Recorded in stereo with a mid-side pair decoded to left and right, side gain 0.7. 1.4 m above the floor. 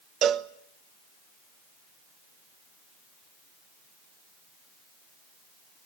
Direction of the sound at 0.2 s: 45° right.